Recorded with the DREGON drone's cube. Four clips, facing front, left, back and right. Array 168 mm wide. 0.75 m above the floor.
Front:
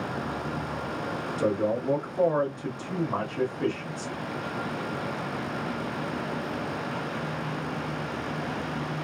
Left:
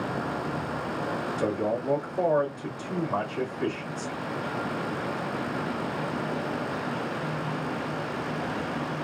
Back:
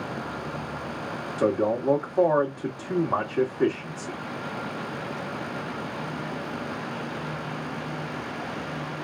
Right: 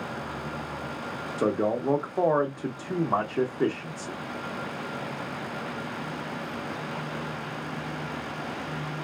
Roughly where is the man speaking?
Behind right.